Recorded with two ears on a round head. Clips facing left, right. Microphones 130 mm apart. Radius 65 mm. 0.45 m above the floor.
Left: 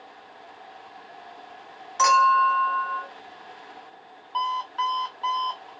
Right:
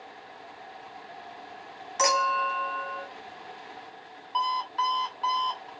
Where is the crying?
No crying in this recording.